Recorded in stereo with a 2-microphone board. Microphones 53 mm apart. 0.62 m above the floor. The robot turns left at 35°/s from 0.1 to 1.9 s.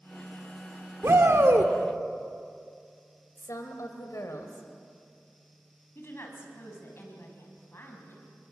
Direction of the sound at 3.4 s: 75° left (ahead or behind).